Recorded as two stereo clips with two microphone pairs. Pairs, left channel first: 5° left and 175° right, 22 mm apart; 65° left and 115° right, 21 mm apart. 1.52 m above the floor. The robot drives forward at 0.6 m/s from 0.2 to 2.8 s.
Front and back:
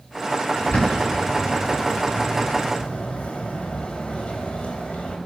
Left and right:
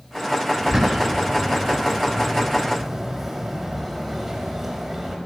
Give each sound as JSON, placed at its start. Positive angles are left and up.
{"t": 0.6, "sound": "a bird", "azimuth_deg": -25, "distance_m": 6.0}